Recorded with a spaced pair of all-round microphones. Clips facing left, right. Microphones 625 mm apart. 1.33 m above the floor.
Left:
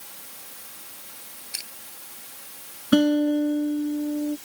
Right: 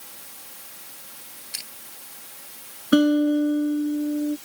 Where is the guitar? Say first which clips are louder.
Right 1 dB; 25° left (ahead or behind).